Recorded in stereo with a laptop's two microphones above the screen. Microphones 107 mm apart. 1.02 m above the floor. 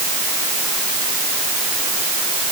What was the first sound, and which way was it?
Only background noise.